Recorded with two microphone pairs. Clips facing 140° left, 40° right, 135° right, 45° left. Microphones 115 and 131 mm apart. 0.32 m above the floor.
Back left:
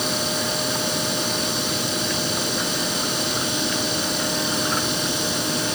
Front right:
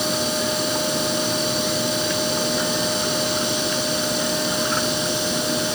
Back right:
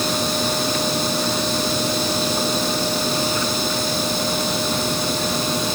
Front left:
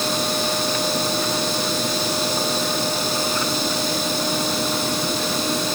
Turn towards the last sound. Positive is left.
No sound to turn to.